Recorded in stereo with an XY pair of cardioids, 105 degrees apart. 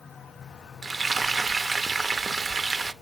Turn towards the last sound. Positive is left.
turn(degrees=-30)